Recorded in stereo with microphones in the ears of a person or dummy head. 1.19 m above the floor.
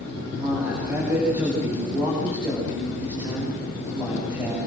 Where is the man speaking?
15° right (ahead or behind), 8.5 m.